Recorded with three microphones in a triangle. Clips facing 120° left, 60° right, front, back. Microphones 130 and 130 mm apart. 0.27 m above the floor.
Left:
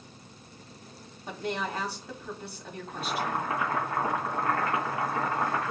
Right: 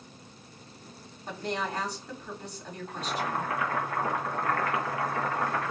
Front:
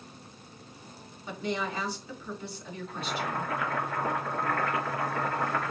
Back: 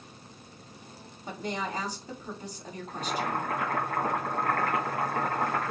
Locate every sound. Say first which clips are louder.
1.3 s a woman speaking: even, front 1 dB; 160° right, 2 m
2.9 s boiling: left 1 dB, back 2 dB; 175° left, 2.5 m